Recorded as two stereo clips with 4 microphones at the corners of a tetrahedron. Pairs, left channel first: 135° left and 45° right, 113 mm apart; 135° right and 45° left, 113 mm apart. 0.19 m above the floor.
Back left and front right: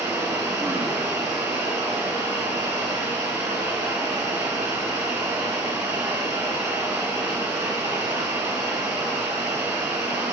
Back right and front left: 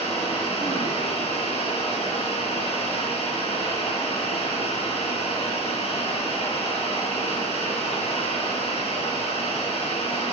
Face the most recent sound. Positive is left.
turn(degrees=-120)